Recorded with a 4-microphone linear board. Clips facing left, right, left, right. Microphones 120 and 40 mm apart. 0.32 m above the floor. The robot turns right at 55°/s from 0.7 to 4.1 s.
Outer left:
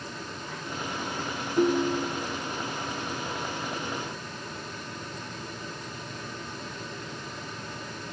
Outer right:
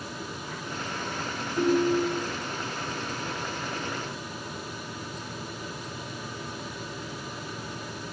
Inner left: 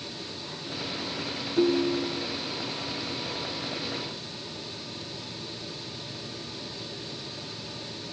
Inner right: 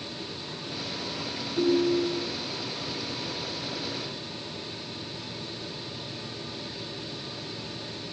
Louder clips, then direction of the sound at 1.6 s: Outer right 1 dB, inner right 1 dB; 160° left.